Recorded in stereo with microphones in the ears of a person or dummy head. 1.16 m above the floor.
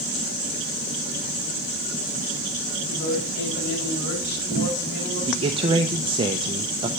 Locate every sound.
2.9 s a woman speaking: 60° left (ahead or behind), 6.5 m
5.3 s a man speaking: 25° right (ahead or behind), 0.7 m